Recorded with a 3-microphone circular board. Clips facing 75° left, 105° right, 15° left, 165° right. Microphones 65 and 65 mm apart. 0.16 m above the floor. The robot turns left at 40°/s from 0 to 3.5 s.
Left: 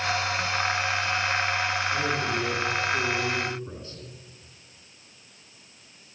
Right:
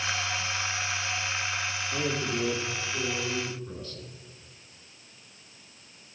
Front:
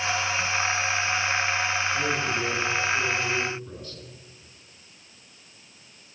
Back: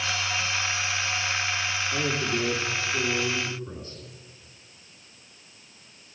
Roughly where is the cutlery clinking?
No cutlery clinking in this recording.